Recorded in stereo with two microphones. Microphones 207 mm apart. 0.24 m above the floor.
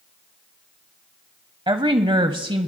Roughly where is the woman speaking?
Right.